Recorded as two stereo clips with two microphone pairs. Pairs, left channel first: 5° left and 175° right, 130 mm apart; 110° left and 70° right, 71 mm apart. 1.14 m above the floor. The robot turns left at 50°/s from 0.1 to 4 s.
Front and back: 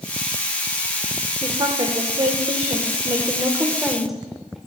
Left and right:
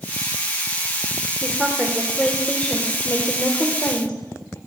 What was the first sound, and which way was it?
A woman speaking, 135° right.